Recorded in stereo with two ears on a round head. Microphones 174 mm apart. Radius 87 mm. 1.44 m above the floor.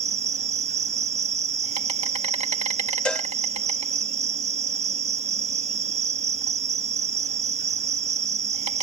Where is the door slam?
No door slam in this recording.